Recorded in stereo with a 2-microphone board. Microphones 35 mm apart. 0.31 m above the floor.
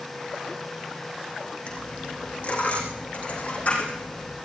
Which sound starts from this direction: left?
A dropped coin, at 1.7 s.